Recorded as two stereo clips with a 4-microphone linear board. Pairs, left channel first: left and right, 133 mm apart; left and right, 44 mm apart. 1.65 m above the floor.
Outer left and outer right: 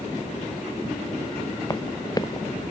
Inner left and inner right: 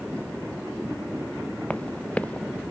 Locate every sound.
1.7 s running footsteps: 30° left (ahead or behind)